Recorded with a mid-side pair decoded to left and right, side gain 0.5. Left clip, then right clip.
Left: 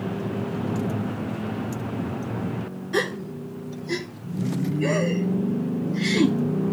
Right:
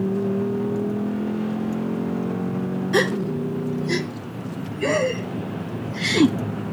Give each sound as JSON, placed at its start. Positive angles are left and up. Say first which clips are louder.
{"t": 2.9, "sound": "a gasp", "louder": "right 4 dB", "azimuth_deg": -30, "distance_m": 1.2}